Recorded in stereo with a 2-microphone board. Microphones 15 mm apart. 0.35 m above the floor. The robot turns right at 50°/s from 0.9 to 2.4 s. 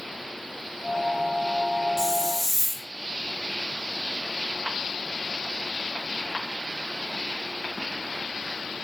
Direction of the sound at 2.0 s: 30° right (ahead or behind).